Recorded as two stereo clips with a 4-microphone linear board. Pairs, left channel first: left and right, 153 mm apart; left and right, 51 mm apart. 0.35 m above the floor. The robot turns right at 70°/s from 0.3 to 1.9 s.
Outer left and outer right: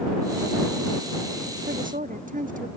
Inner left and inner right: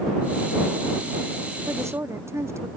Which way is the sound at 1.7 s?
75° right (ahead or behind).